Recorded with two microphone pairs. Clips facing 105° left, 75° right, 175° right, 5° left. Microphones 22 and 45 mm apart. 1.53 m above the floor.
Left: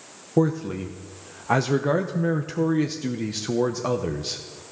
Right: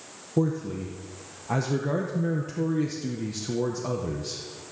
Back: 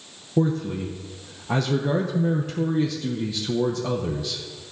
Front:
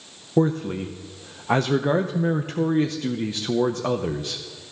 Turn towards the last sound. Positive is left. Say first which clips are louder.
# left 4 dB, front 2 dB
turn(degrees=50)